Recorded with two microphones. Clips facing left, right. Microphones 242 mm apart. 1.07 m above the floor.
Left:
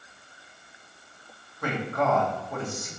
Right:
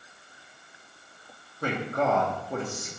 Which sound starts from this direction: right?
A man speaking, at 1.6 s.